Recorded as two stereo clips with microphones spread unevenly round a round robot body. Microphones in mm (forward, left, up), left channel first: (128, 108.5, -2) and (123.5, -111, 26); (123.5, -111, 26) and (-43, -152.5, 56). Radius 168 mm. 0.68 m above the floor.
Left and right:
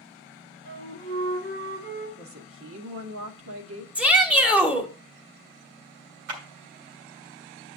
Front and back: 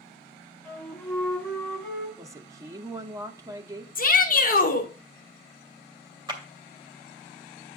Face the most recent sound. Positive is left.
turn(degrees=-100)